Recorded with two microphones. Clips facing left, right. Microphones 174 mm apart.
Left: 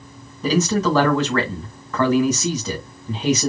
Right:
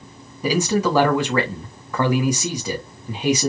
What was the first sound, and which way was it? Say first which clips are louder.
A man speaking: left 1 dB; 10° right (ahead or behind).